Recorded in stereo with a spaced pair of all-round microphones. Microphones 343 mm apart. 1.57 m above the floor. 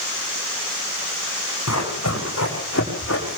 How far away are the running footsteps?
About 8 m.